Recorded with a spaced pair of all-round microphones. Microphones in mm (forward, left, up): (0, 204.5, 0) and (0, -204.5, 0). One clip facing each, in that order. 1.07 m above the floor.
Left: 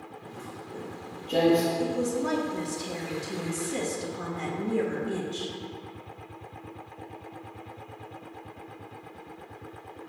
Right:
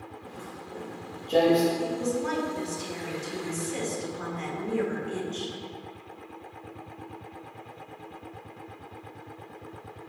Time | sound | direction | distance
0.2 | footsteps | 5° right (ahead or behind) | 1.4 m
1.8 | a woman speaking | 55° left (ahead or behind) | 0.7 m